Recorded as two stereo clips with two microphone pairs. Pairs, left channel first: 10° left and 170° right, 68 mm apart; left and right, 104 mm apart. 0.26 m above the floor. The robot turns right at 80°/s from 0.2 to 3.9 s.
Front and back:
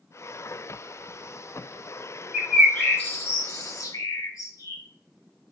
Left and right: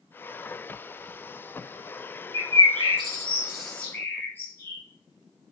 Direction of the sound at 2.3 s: 100° right.